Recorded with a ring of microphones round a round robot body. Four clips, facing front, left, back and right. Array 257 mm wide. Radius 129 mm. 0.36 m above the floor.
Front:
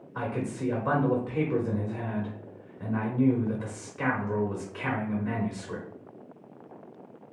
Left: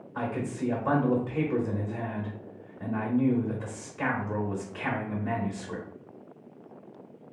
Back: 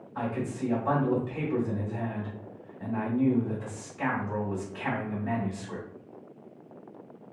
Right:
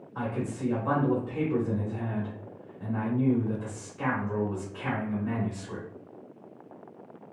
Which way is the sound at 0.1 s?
30° left.